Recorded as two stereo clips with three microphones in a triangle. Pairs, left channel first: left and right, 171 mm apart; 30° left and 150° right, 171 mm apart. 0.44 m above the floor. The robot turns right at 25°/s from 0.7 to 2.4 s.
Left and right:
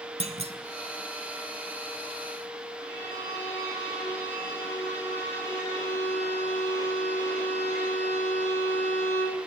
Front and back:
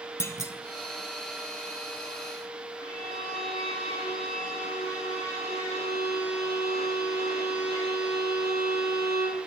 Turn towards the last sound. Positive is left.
turn(degrees=-40)